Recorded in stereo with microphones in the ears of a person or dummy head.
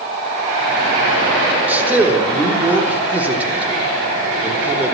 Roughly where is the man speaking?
Centre.